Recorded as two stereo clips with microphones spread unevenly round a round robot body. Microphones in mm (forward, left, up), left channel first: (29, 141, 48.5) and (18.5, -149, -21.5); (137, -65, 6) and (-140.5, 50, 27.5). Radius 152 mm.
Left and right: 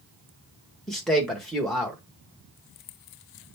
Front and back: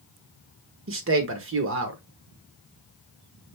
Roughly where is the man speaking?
Behind.